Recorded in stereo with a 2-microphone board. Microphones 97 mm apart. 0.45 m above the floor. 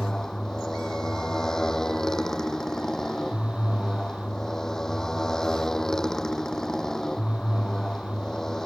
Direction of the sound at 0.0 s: 5° left (ahead or behind).